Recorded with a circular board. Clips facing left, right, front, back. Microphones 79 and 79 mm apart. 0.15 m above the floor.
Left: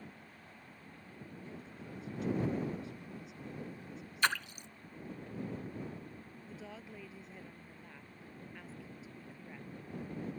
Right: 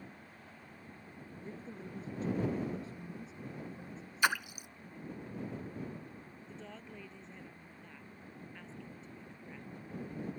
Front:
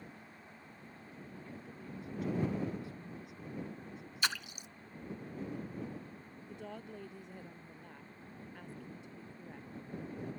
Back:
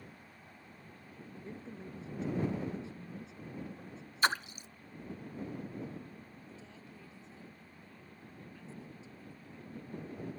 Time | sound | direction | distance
1.4 | a woman speaking | 130° right | ?
4.2 | a splash | 165° right | ?
6.5 | a woman speaking | 5° left | ?